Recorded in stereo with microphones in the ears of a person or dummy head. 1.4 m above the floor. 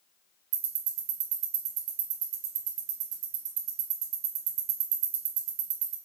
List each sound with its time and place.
0.5 s ticking: 90° right, 2.5 m